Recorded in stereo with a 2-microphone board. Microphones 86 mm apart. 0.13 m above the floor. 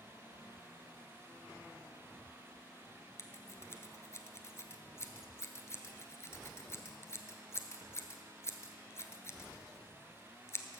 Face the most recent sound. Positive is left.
turn(degrees=35)  # may be behind; listen again after turning